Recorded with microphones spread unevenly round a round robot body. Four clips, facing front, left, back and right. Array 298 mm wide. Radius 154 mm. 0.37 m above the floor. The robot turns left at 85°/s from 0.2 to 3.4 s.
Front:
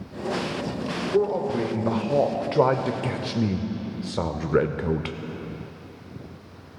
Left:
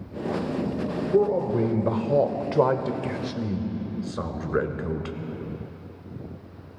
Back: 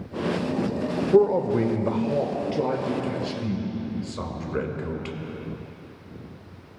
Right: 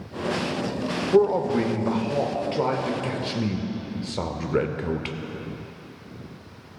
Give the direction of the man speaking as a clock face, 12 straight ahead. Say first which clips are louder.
Right 3 dB, back 4 dB; 6 o'clock.